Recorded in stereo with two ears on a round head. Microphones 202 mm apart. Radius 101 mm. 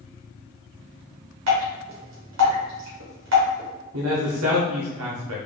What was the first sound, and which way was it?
Dripping, 60° right (ahead or behind).